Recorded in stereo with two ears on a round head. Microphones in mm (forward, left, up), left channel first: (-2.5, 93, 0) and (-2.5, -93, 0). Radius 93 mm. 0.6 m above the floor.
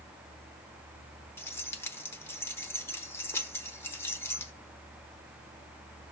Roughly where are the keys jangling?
Centre.